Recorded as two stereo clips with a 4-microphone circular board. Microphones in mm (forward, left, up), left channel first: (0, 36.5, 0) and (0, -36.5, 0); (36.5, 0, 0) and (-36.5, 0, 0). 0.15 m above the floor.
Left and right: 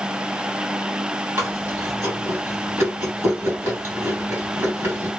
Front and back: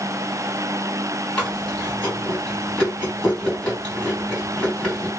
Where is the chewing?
80° right, 2.0 m.